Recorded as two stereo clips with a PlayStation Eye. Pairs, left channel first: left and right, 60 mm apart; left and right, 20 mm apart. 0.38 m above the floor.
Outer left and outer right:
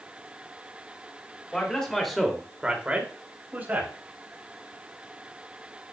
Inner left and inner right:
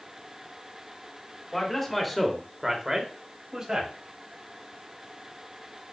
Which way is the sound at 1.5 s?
15° left (ahead or behind).